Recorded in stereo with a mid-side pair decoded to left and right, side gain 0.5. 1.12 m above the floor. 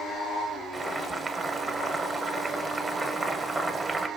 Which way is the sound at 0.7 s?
25° right.